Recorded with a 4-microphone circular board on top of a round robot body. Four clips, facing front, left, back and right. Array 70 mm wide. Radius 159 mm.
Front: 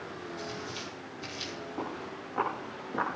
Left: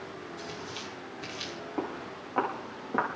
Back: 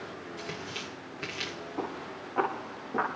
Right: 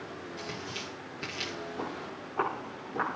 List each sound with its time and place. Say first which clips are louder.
0.4 s tearing paper: right 2 dB, back 1 dB; 160° right, 2.5 m
1.8 s footsteps: left 2 dB, back 2 dB; 95° left, 8.5 m